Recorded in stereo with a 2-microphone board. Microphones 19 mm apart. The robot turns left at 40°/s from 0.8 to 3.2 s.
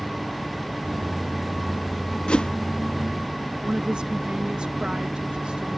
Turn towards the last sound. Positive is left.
turn(degrees=-65)  # may be behind; listen again after turning